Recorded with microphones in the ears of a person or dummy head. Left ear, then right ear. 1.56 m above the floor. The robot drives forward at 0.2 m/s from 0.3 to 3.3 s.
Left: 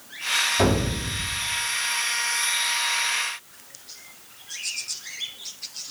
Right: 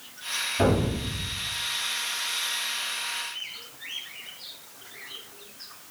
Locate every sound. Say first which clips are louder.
0.6 s an explosion: left 2 dB; 35° left (ahead or behind), 2.0 m; by 1.4 s 30° left (ahead or behind), 2 m